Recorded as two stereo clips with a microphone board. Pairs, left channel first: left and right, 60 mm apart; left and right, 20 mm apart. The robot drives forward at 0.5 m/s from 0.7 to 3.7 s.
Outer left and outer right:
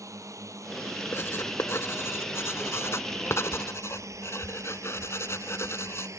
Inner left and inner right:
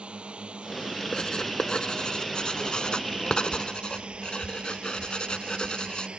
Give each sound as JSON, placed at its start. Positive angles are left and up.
{"t": 0.0, "sound": "a drone", "side_deg": -70}
{"t": 1.1, "sound": "writing", "side_deg": 45}